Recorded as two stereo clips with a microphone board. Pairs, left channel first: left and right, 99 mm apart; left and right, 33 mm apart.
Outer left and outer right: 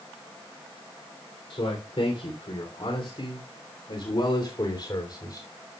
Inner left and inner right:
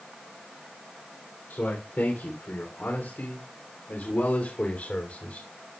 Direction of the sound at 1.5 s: 80° left.